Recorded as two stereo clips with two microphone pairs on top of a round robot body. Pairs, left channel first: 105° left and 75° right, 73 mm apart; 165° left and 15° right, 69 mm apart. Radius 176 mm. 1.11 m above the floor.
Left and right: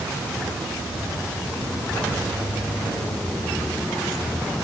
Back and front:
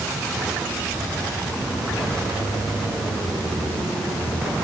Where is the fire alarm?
No fire alarm in this recording.